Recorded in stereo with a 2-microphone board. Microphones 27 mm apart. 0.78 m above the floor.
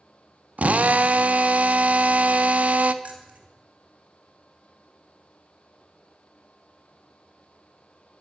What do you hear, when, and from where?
0.6 s a drill: 70° right (ahead or behind), 0.7 m
3.0 s keys jangling: 60° right (ahead or behind), 2 m